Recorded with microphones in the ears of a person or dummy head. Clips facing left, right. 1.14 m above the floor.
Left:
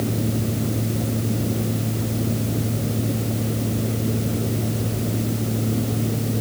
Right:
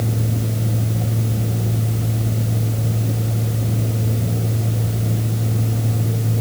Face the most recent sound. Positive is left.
turn(degrees=15)  # may be behind; listen again after turning